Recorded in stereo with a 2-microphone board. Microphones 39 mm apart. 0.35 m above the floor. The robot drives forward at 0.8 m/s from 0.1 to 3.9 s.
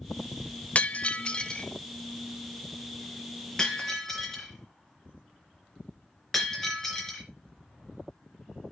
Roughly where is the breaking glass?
Left.